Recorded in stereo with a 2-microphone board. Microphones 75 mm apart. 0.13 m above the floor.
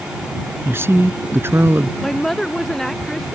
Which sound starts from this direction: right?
A woman speaking, at 0.7 s.